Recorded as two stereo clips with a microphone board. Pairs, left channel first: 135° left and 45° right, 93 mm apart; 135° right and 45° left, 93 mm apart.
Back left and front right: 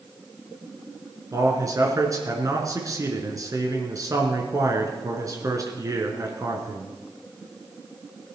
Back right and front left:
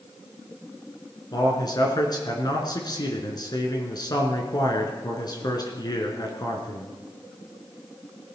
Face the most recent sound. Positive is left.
turn(degrees=-95)